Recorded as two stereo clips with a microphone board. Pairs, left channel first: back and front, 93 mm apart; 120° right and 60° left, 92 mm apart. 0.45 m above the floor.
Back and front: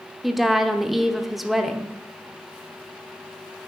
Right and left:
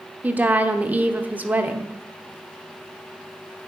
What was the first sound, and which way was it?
A woman speaking, 85° left.